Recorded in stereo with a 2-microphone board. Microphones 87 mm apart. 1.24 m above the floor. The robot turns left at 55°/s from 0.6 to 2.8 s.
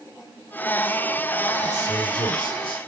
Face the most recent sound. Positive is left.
turn(degrees=80)